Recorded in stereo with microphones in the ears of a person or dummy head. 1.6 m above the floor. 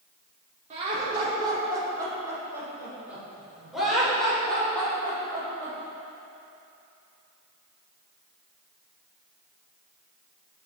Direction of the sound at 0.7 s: 40° right (ahead or behind).